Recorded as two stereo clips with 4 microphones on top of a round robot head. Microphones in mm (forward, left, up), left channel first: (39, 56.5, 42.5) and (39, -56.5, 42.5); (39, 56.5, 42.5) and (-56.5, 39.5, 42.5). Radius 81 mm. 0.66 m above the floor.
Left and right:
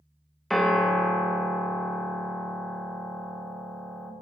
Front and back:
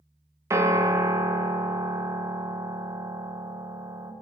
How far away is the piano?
About 0.8 m.